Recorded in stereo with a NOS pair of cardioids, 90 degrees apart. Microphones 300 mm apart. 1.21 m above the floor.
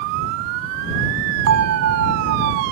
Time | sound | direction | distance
1.5 | a bell | 60° right | ?